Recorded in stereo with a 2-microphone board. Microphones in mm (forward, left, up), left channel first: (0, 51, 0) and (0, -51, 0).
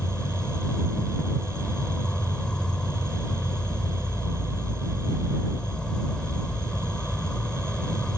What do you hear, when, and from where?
0.0 s an insect: 10° left (ahead or behind)